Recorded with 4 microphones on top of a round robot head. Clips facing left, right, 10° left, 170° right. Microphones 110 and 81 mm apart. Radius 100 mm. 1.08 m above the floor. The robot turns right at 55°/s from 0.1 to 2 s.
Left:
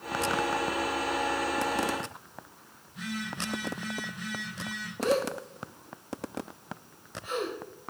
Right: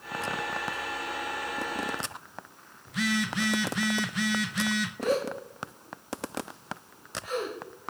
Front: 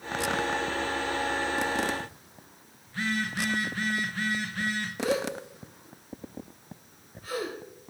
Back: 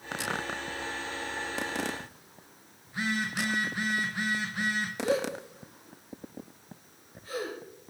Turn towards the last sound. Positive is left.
turn(degrees=25)